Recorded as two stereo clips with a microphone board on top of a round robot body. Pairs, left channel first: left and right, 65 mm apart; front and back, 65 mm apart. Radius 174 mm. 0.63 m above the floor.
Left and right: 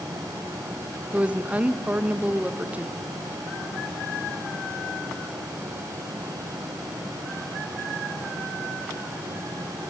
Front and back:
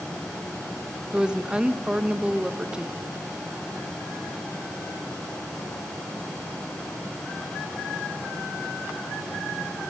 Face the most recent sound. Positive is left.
turn(degrees=-120)